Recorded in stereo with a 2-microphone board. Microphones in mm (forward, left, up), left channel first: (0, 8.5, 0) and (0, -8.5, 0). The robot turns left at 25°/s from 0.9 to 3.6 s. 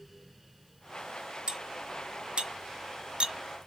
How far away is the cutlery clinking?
About 1.5 m.